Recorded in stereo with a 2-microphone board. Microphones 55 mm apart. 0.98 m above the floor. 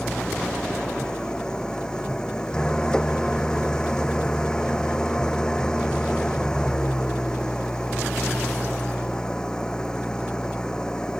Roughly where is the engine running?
Centre.